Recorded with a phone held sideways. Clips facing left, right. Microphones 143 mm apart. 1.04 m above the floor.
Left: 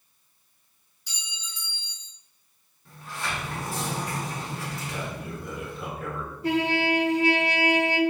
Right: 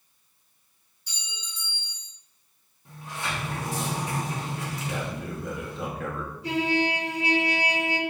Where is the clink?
85° left, 1.8 m.